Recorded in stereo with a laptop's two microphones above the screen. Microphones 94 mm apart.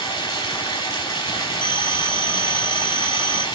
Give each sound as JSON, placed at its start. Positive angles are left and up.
{"t": 0.0, "sound": "running water", "side_deg": 45, "distance_m": 3.5}
{"t": 1.6, "sound": "a phone ringing", "side_deg": -80, "distance_m": 1.2}